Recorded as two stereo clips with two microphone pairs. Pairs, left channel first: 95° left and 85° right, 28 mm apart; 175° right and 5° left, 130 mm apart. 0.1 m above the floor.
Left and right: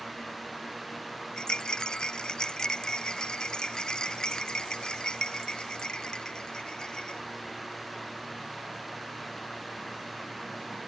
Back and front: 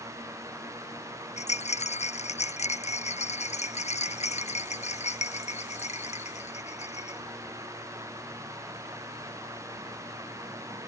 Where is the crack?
No crack in this recording.